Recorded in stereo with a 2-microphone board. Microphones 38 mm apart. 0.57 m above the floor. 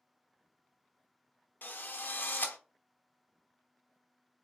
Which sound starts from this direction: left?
A drill, at 1.6 s.